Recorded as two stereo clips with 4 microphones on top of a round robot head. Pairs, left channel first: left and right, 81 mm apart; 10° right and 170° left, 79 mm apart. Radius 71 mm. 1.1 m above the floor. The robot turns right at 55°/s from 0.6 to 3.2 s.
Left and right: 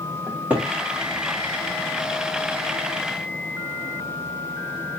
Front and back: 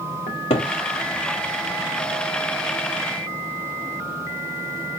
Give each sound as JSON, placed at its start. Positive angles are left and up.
{"t": 0.3, "sound": "a cupboard door", "azimuth_deg": -10, "distance_m": 0.5}